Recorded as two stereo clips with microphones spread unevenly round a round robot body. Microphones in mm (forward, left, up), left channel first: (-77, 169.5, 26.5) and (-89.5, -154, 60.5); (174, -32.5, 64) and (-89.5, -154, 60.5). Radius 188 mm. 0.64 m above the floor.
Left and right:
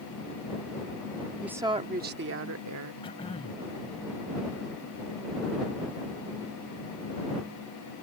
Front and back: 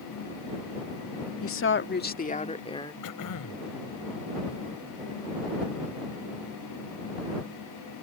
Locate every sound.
1.4 s a woman speaking: straight ahead; by 2.9 s 50° right
3.0 s throat clearing: 10° left